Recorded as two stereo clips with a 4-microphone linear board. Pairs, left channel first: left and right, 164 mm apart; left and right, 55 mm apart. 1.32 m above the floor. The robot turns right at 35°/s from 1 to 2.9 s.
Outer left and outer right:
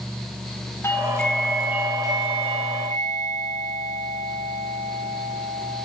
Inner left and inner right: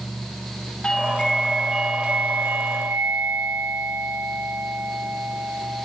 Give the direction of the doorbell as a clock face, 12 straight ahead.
7 o'clock.